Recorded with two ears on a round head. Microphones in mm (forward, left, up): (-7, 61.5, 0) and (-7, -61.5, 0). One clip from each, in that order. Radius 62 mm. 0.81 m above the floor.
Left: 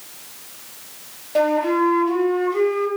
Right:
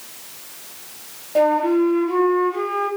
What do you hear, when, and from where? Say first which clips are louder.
1.4 s a flute: right 1 dB; 35° left (ahead or behind), 2 m